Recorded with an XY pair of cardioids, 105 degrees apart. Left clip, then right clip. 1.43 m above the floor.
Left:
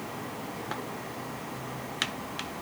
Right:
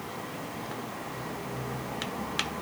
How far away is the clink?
No clink in this recording.